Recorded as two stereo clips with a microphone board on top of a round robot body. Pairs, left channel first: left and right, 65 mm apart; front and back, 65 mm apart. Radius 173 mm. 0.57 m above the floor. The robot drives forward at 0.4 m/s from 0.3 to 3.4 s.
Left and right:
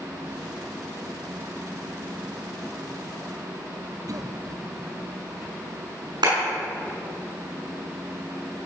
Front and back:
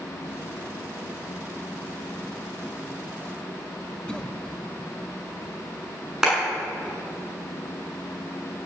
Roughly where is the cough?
Right.